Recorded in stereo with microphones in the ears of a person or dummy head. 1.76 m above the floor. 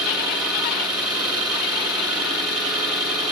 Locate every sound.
0.0 s an engine running: 15° right (ahead or behind), 4.5 m